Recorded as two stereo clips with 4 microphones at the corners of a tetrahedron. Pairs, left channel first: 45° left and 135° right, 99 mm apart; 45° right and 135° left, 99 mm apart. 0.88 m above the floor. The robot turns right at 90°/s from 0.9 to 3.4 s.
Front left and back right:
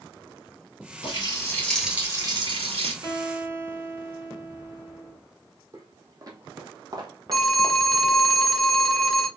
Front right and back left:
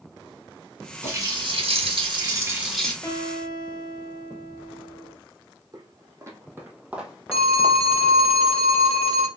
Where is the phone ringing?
40° right, 0.9 m.